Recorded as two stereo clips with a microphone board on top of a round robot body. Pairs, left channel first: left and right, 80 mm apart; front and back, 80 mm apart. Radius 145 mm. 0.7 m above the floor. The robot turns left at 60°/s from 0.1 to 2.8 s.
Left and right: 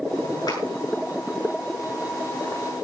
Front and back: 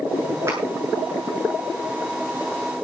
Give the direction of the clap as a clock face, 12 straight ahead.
8 o'clock.